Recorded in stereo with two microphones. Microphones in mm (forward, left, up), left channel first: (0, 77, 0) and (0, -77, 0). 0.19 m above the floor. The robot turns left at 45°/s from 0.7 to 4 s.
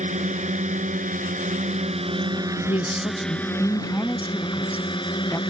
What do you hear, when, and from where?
0.0 s a drone: 70° right; by 5.5 s 140° left
2.7 s a man speaking: 80° left; by 5.4 s 20° left